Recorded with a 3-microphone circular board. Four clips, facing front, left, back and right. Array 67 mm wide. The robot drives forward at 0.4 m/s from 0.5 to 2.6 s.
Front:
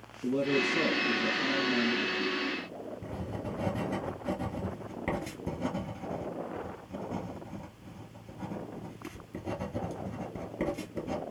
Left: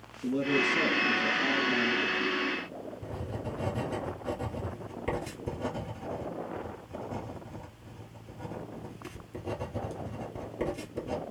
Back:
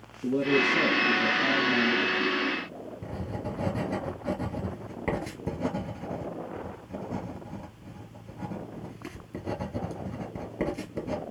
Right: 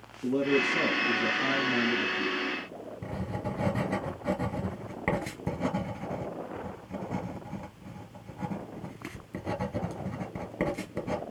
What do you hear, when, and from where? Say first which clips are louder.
0.2 s a man speaking: right 2 dB, back 4 dB; 100° right, 5.5 m; by 2.4 s 110° right, 6 m
3.0 s writing: right 5 dB, back 4 dB; 115° right, 4.5 m